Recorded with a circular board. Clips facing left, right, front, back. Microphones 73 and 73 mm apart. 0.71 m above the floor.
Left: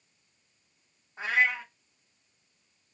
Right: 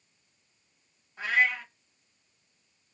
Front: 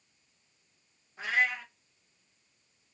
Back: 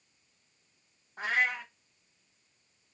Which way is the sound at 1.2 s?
150° left.